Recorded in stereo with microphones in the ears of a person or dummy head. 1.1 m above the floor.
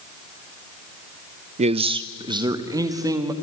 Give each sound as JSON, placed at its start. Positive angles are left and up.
{"t": 1.6, "sound": "a man speaking", "side_deg": -30, "distance_m": 0.5}